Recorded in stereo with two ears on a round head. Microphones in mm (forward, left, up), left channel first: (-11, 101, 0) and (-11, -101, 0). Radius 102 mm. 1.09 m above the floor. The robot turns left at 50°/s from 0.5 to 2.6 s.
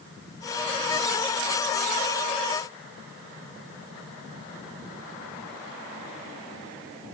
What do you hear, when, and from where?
Only background noise.